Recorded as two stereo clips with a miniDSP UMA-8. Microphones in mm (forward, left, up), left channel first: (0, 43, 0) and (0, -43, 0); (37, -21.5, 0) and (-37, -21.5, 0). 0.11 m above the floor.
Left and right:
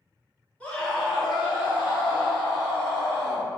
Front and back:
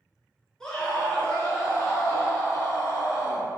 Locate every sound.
0.6 s a scream: 65° left, 1.1 m; by 3.5 s 35° right, 2.5 m